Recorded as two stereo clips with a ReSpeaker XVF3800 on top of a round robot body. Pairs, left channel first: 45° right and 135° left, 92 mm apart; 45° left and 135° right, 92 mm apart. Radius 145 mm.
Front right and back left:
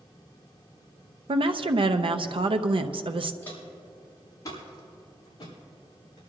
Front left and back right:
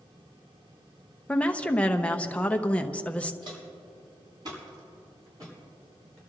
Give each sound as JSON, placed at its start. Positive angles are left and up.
{"t": 1.3, "sound": "a woman speaking", "azimuth_deg": 120, "distance_m": 0.8}
{"t": 3.4, "sound": "footsteps", "azimuth_deg": -115, "distance_m": 5.5}